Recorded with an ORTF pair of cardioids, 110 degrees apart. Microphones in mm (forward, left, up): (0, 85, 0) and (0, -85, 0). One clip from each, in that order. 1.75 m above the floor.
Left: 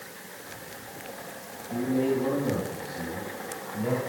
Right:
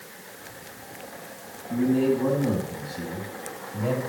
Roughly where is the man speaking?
Ahead right.